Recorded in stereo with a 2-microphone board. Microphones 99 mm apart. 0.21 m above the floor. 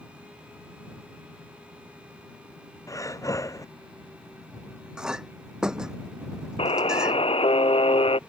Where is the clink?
10° right (ahead or behind).